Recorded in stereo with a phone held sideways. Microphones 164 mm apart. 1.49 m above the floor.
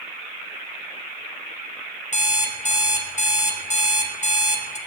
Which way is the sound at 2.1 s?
45° left (ahead or behind).